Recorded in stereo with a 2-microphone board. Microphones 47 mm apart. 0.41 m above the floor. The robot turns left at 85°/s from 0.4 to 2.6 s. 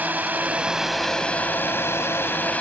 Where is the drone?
135° right; by 2.6 s 40° left.